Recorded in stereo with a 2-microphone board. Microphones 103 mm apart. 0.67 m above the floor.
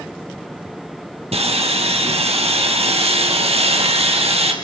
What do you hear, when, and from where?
1.3 s sawing: 80° right, 3.5 m